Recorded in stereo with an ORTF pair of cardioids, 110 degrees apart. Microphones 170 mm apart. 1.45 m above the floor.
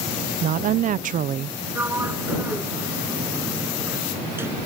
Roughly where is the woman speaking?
Ahead right.